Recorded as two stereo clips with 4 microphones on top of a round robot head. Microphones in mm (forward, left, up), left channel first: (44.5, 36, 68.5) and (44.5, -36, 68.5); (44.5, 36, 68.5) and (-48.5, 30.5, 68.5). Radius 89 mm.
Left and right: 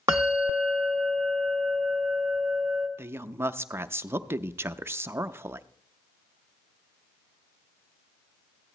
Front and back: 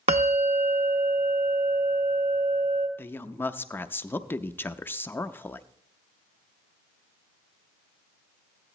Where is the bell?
155° right, 0.6 m.